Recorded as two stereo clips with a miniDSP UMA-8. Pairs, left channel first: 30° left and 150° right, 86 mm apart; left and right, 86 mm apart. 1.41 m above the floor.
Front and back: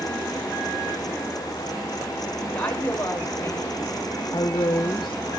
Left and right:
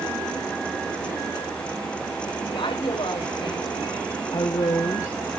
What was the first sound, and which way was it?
A woman speaking, 105° left.